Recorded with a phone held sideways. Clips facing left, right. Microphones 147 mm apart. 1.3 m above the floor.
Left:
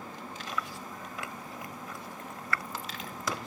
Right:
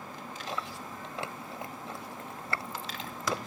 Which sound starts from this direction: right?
Chewing, at 0.5 s.